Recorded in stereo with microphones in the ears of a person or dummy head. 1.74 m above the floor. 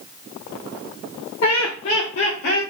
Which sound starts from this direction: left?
Laughter, at 1.4 s.